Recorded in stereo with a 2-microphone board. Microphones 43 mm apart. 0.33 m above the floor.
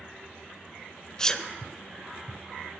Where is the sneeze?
20° left (ahead or behind), 0.8 m.